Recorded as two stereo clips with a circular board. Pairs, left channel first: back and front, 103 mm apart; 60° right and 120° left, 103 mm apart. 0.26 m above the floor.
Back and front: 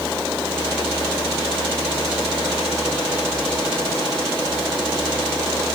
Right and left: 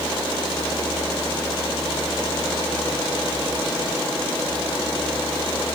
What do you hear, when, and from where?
Only background noise.